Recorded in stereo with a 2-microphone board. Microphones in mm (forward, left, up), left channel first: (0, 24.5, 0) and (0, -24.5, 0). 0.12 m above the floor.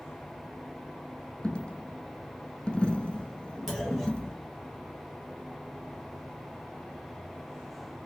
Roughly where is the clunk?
Centre.